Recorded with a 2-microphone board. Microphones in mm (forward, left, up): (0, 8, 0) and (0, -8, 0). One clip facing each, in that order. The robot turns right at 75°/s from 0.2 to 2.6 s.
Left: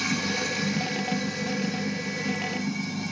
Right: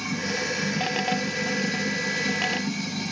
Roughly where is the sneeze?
I don't hear a sneeze.